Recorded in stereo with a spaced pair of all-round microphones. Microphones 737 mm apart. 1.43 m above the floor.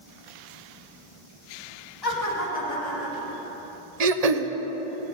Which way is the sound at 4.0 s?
60° right (ahead or behind).